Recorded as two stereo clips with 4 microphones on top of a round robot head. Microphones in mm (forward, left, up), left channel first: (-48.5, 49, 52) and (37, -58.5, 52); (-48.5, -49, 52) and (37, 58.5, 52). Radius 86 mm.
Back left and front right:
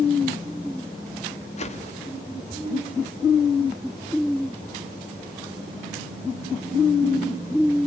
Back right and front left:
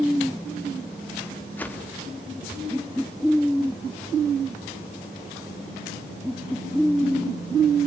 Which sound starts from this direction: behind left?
A whoosh, at 1.6 s.